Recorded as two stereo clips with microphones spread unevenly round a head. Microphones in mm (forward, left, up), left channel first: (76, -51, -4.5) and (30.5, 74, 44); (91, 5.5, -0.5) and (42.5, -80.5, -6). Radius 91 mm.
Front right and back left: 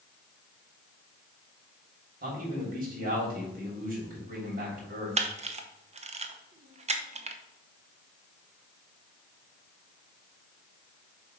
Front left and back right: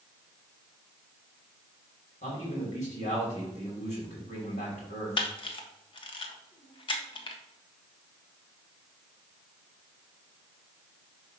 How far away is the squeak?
No squeak in this recording.